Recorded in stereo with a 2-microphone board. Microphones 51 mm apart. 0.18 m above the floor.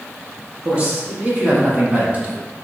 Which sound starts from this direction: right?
A man speaking, at 0.7 s.